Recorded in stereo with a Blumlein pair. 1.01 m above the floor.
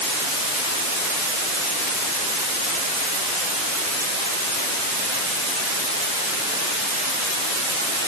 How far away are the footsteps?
No footsteps in this recording.